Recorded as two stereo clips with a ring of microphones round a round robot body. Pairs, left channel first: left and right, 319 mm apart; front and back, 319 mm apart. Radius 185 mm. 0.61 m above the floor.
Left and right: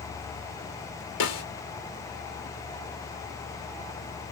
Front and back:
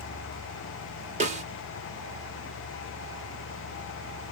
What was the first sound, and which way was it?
A snare drum, 115° left.